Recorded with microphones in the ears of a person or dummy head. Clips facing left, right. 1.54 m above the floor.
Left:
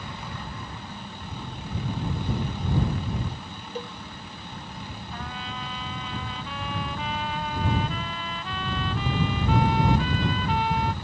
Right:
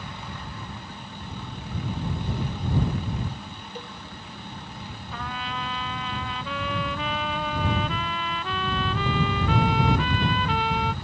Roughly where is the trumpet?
Right.